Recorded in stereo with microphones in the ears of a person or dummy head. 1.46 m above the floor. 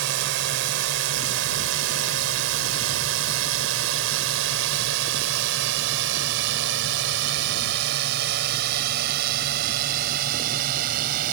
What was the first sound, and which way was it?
A drone, 70° right (ahead or behind).